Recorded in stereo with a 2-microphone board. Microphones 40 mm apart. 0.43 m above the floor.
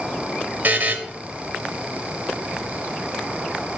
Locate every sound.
0.6 s a buzzer: 50° right (ahead or behind), 0.7 m